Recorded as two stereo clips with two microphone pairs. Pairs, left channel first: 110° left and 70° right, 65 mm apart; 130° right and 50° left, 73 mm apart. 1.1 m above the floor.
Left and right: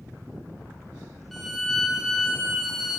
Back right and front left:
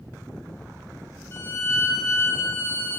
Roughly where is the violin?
Behind.